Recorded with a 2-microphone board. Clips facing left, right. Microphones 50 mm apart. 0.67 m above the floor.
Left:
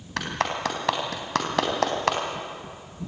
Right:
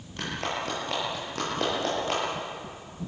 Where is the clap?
75° left (ahead or behind), 4 m.